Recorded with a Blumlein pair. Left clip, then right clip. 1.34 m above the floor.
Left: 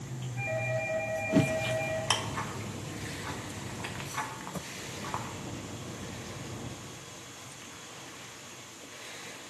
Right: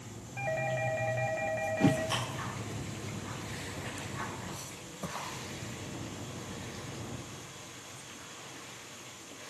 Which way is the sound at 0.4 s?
70° right.